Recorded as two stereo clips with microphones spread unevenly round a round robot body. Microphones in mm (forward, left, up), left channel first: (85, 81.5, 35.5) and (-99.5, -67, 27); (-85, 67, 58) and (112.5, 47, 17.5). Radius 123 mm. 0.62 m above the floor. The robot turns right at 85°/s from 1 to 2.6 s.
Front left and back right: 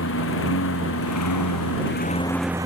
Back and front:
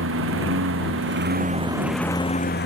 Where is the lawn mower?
Straight ahead; by 2.7 s 145° left.